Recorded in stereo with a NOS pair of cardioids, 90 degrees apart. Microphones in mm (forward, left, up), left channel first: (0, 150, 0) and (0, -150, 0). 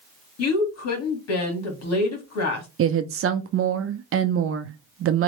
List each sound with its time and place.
0.4 s a woman speaking: 65° left, 2 m
2.8 s a woman speaking: 50° right, 0.7 m